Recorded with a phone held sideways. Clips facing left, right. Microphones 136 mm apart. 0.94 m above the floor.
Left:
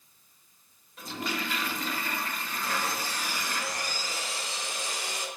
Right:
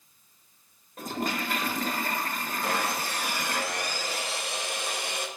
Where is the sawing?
60° right (ahead or behind), 0.7 m.